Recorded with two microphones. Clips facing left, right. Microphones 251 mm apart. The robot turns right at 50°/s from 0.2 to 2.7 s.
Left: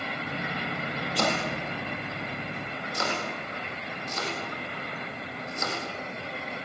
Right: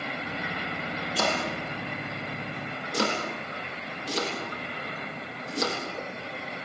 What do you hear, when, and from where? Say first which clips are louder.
1.1 s chopping: left 1 dB; centre (ahead or behind), 8 m; by 6.7 s 80° right, 8 m